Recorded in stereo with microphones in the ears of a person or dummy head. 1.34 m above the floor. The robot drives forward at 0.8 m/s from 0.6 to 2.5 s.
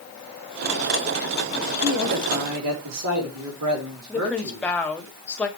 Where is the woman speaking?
5° left (ahead or behind), 2 m.